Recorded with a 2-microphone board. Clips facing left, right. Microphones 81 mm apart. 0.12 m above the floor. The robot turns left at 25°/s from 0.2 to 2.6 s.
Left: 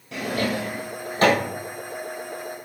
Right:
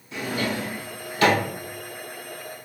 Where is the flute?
No flute in this recording.